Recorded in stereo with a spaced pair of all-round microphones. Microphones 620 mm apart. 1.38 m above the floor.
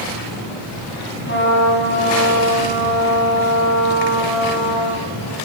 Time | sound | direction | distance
1.3 | a trumpet | 20° left (ahead or behind) | 8.5 m